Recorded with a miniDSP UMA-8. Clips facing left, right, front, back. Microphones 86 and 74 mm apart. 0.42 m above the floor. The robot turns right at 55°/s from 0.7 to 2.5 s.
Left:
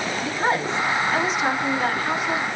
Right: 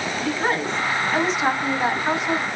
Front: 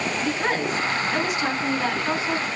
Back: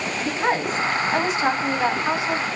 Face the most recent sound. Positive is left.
turn(degrees=-115)